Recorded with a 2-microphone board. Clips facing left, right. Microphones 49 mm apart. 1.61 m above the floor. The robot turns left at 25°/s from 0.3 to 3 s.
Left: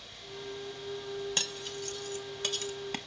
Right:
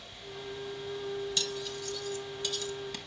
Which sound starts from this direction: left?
Cutlery clinking, at 1.4 s.